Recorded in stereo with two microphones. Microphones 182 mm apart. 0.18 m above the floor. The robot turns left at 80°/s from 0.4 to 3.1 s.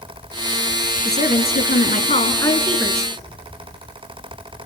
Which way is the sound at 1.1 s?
135° left.